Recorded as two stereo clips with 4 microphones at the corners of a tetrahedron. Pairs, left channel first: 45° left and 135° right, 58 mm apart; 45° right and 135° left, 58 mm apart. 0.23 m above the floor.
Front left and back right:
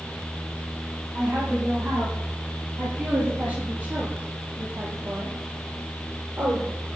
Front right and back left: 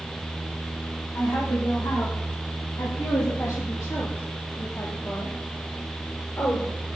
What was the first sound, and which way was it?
A woman speaking, 60° right.